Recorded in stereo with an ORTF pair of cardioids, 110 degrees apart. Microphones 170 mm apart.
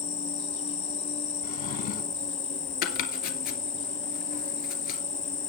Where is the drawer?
70° left, 2.5 m.